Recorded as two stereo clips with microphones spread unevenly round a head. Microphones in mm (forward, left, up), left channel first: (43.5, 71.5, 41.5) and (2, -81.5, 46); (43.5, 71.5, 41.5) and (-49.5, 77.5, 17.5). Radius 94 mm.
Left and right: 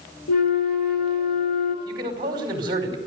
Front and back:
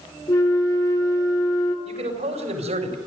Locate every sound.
0.3 s a flute: 50° left, 3.5 m
1.9 s a man speaking: 170° right, 4.5 m